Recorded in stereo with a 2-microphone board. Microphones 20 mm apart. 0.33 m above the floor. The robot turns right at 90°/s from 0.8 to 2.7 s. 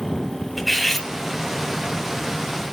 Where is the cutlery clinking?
5° left (ahead or behind), 1.3 m; by 1.1 s 25° left (ahead or behind), 1.3 m.